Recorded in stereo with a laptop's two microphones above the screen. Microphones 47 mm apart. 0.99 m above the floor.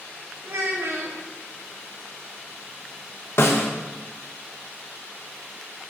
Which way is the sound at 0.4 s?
65° right (ahead or behind).